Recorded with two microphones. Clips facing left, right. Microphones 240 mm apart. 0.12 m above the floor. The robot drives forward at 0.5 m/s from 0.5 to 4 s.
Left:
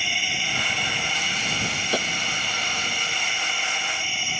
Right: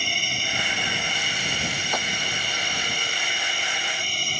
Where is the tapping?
35° left (ahead or behind).